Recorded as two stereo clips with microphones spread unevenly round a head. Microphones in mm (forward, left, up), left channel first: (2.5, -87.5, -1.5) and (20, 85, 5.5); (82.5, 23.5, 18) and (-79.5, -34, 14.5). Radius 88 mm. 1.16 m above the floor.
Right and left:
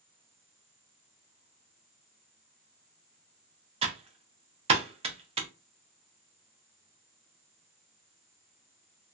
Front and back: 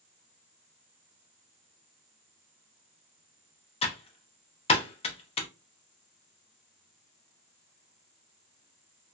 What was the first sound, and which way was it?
Typing on a keyboard, 50° left.